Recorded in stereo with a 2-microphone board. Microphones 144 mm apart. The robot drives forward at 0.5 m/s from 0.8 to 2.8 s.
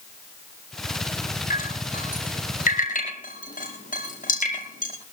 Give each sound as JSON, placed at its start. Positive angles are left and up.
{"t": 1.5, "sound": "dripping", "side_deg": 70, "distance_m": 8.5}